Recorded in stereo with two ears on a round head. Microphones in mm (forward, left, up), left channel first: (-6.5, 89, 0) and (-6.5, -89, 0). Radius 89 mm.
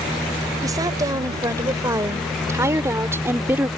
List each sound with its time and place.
0.6 s a woman speaking: 20° right (ahead or behind); by 3.7 s 10° right (ahead or behind)